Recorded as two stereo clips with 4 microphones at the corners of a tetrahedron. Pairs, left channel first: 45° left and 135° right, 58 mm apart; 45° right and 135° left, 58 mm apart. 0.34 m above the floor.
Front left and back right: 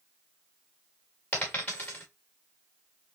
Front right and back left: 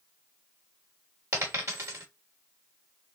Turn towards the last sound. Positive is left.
turn(degrees=110)